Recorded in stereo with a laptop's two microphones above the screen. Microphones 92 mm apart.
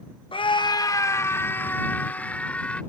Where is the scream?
65° left (ahead or behind); by 2.8 s 15° left (ahead or behind).